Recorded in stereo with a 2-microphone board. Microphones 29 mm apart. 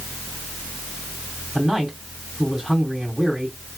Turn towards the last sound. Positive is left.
turn(degrees=-10)  # may be behind; listen again after turning